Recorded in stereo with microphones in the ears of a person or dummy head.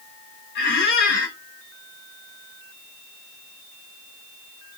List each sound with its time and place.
0.6 s a squeak: 50° left (ahead or behind), 0.6 m